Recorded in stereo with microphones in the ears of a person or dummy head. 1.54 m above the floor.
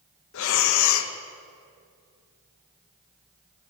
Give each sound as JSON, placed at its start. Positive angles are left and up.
{"t": 0.3, "sound": "breathing", "side_deg": 70, "distance_m": 0.6}